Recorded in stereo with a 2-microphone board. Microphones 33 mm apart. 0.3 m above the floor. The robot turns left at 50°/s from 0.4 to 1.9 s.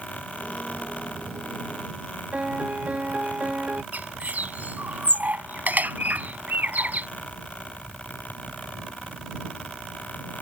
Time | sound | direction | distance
2.3 | a piano | 45° right (ahead or behind) | ?
3.9 | a bird | 55° right (ahead or behind) | ?